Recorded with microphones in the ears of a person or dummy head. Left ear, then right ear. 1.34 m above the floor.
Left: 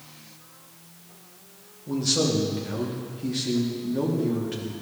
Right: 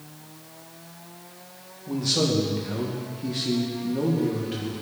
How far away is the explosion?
No explosion in this recording.